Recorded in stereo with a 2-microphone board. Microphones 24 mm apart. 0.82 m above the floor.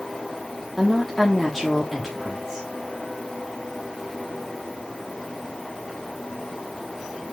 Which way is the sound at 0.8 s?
10° left (ahead or behind).